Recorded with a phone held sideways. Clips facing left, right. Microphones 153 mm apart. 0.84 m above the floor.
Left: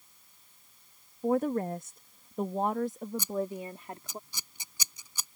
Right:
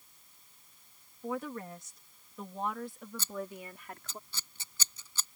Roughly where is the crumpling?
I don't hear crumpling.